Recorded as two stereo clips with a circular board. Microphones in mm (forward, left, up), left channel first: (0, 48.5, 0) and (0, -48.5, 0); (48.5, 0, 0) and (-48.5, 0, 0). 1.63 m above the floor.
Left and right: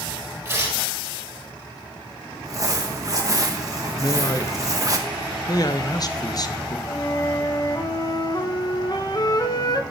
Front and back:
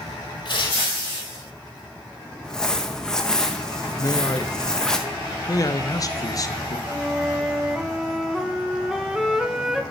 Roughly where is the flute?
Left.